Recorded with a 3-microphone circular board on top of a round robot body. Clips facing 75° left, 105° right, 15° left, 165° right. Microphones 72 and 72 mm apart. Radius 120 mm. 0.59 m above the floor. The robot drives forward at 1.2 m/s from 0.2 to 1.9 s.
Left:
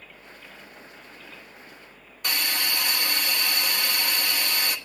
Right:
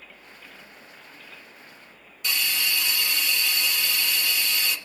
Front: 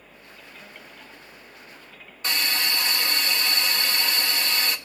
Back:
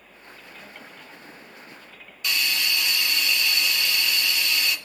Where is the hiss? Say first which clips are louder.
Even, even; 60° left, 1.8 m.